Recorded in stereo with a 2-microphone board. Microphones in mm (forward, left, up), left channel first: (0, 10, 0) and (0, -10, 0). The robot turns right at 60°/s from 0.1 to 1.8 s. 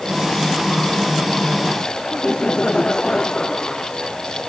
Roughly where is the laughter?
Left.